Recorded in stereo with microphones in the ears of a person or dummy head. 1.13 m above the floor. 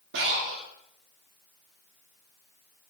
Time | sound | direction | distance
0.1 | breathing | 70° right (ahead or behind) | 1.3 m